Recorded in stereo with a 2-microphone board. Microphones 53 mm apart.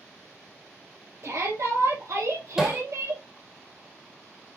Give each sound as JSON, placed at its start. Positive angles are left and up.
{"t": 1.2, "sound": "a shout", "side_deg": -70, "distance_m": 3.5}
{"t": 2.6, "sound": "hammering", "side_deg": -10, "distance_m": 2.5}